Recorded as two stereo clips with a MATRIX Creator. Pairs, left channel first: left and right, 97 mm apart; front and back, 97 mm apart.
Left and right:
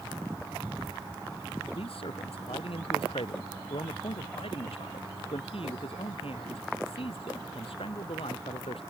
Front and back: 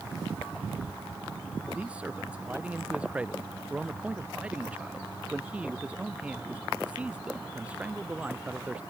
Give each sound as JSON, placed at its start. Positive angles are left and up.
{"t": 1.7, "sound": "a man speaking", "azimuth_deg": 105}